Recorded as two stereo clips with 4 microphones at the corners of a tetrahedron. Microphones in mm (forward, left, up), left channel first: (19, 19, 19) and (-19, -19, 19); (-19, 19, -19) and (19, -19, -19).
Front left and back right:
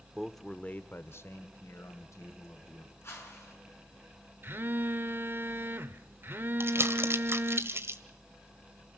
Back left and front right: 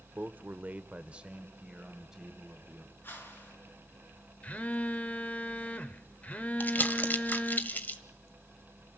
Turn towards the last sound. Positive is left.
turn(degrees=-170)